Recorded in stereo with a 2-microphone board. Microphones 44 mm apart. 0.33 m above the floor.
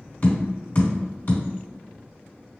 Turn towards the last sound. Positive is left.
turn(degrees=45)  # may be behind; listen again after turning